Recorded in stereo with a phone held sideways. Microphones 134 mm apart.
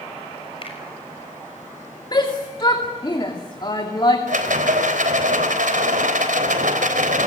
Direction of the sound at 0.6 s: 45° left (ahead or behind).